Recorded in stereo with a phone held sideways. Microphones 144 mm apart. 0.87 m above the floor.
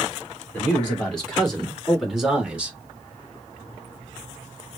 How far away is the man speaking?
About 2.5 m.